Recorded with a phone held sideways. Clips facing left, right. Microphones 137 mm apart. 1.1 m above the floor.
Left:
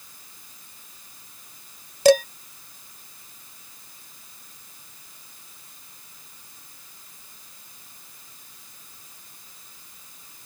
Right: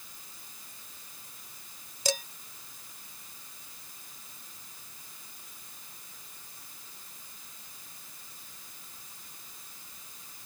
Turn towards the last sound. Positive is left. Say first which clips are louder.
# left 18 dB
turn(degrees=75)  # may be behind; listen again after turning